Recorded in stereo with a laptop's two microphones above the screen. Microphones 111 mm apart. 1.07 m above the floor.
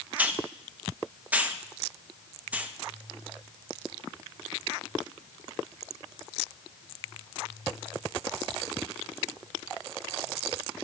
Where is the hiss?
15° right (ahead or behind), 0.7 m.